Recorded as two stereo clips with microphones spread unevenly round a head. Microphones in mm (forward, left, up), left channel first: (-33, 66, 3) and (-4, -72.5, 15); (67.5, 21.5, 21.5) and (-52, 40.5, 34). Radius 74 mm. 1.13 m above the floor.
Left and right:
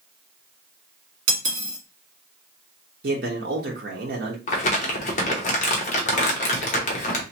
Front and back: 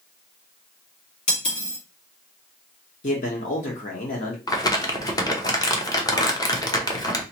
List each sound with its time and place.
1.3 s cutlery clinking: 60° right, 1.4 m
3.0 s a man speaking: 40° right, 1.0 m
4.5 s crumpling: 55° left, 0.9 m